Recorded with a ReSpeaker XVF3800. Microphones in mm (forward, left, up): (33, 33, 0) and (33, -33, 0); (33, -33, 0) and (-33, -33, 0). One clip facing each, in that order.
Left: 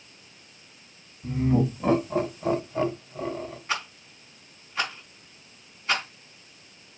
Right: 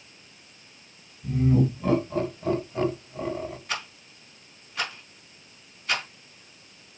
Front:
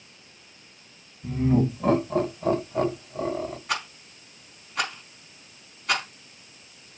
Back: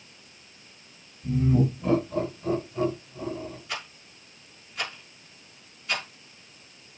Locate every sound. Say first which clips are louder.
1.2 s laughter: right 1 dB, front 1 dB; 40° left, 3 m; by 3.6 s 5° right, 1.9 m
3.7 s a rattle: left 3 dB, front 7 dB; 30° left, 4 m